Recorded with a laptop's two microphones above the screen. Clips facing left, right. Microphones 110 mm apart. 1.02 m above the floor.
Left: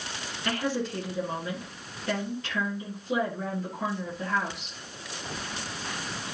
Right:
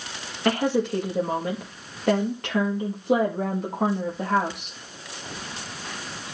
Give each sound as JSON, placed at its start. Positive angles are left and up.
{"t": 0.5, "sound": "a woman speaking", "side_deg": -65, "distance_m": 1.6}